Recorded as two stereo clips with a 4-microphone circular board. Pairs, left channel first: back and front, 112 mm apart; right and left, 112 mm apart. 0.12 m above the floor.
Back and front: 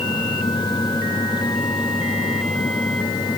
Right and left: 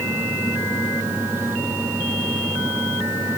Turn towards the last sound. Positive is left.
No sound to turn to.